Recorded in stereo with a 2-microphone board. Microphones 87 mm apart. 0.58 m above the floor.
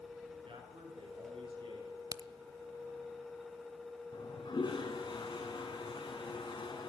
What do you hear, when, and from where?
0.5 s a man speaking: 80° right, 9 m; by 2.0 s 75° right (ahead or behind), 11 m
2.1 s a crack: 50° right (ahead or behind), 0.5 m
4.1 s a toilet flushing: 60° left (ahead or behind), 4.5 m